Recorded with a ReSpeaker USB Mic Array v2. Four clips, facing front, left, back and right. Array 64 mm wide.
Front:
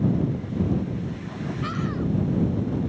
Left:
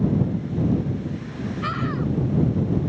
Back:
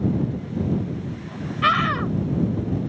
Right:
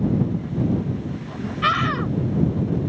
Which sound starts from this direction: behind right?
A scream, at 1.6 s.